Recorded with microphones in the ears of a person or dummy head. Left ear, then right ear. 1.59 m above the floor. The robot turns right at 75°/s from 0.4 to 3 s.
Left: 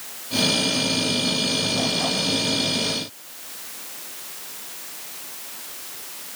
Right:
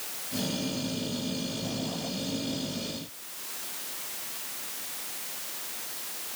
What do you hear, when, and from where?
Only background noise.